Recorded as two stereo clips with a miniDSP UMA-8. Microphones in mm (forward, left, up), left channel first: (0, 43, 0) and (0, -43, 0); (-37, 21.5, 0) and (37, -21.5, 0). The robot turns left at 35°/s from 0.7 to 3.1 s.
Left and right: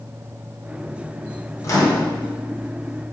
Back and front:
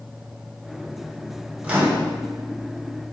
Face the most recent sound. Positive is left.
turn(degrees=-5)